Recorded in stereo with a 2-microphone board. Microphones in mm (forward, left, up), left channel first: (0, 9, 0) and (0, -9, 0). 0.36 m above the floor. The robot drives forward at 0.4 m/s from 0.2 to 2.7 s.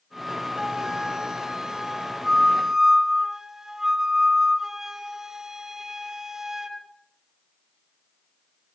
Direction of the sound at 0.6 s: 50° right (ahead or behind).